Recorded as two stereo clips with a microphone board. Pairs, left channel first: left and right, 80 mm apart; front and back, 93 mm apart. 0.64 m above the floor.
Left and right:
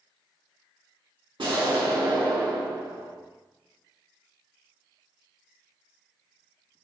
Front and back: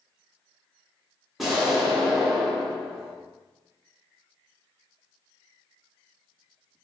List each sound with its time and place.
1.4 s an explosion: 90° right, 0.7 m